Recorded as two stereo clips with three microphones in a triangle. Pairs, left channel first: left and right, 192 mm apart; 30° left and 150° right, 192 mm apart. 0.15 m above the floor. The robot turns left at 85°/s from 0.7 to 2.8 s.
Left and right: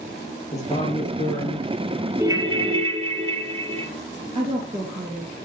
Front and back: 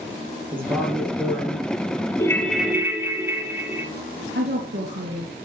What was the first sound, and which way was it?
A man speaking, 145° left.